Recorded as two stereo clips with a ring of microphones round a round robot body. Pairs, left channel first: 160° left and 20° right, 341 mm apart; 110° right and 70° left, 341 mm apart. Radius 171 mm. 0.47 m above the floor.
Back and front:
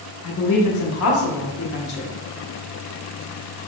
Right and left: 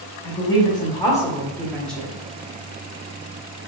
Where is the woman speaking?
175° left, 1.9 m; by 2.1 s 155° left, 1.2 m.